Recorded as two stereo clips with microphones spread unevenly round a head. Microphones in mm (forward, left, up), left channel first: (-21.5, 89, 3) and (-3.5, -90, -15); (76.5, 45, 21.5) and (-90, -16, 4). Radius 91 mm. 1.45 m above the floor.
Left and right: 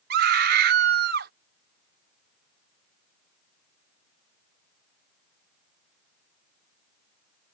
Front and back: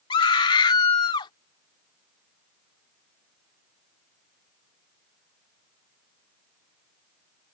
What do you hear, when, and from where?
0.1 s a scream: 45° right